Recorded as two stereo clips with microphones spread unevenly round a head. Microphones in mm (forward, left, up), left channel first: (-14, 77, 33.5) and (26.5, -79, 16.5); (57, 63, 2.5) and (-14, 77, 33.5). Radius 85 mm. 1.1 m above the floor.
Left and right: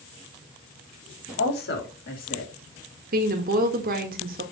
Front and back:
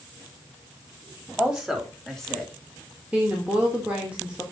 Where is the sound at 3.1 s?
105° right, 1.8 m.